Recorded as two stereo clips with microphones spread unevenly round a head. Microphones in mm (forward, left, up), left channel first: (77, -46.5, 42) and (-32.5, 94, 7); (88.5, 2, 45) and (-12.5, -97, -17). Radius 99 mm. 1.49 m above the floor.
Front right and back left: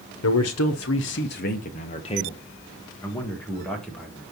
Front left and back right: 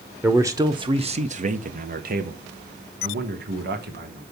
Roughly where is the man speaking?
Ahead right.